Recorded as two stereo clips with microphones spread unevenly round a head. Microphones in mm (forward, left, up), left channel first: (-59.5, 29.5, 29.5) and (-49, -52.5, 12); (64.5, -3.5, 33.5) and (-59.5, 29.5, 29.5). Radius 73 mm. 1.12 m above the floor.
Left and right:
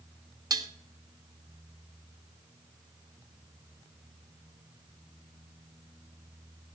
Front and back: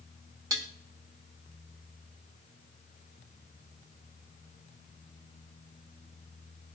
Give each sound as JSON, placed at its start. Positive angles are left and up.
{"t": 0.5, "sound": "dishes clattering", "azimuth_deg": -130, "distance_m": 1.1}